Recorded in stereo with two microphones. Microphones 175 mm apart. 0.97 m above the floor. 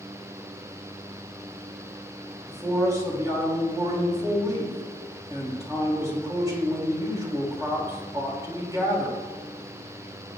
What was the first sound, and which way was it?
A man speaking, 20° right (ahead or behind).